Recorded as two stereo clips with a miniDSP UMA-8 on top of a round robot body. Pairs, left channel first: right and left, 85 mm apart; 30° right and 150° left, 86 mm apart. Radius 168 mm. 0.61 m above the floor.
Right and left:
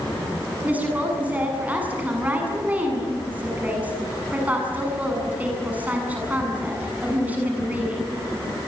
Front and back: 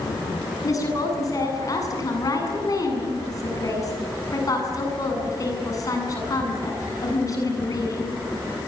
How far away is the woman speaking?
About 8 m.